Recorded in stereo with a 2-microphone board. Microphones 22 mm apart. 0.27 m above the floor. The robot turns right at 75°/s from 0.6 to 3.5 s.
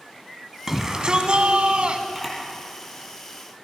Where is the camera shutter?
10° right (ahead or behind), 5.5 m; by 3.6 s 80° left, 5.5 m.